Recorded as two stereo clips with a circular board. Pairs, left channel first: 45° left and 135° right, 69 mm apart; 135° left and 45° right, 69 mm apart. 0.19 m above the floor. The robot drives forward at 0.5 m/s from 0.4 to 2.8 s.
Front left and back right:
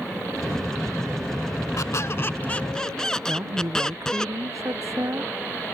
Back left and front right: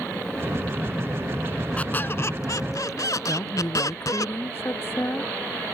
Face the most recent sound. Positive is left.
turn(degrees=-175)